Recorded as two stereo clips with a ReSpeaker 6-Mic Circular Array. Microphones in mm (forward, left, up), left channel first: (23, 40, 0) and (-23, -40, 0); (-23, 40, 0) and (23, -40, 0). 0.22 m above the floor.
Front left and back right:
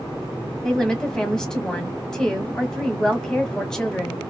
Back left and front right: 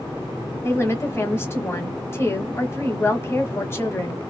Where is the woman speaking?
135° left, 1.3 m.